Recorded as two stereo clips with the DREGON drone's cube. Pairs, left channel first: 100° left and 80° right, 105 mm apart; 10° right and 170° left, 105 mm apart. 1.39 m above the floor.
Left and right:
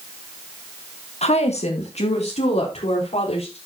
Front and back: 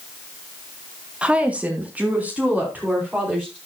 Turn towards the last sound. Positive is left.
turn(degrees=95)